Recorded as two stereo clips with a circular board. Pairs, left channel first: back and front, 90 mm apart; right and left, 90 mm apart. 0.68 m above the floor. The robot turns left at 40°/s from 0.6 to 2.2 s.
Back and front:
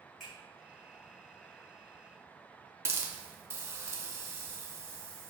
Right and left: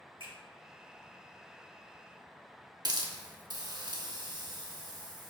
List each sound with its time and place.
0.2 s a finger snap: 85° left, 1.9 m
2.9 s a hiss: 60° left, 0.5 m